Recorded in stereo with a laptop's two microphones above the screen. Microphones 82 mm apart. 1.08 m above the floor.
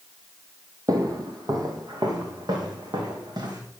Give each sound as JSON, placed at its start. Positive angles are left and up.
{"t": 0.9, "sound": "footsteps", "side_deg": -50, "distance_m": 2.0}